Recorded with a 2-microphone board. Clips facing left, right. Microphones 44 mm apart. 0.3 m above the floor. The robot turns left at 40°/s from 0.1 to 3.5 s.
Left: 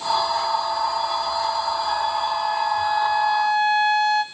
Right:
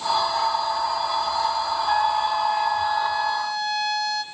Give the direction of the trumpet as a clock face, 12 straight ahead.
5 o'clock.